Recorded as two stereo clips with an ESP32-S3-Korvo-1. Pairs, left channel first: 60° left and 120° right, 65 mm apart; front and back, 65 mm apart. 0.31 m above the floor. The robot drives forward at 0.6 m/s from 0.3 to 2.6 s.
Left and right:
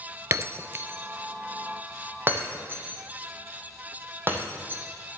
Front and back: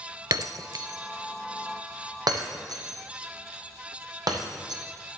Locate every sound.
0.3 s breaking glass: 165° right, 0.5 m; by 4.8 s 175° right, 1.9 m